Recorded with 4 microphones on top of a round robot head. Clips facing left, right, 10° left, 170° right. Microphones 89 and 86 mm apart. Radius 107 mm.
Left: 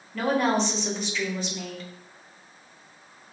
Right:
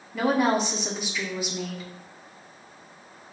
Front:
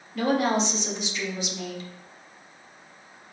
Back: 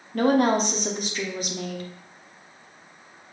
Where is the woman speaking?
170° right, 1.0 m.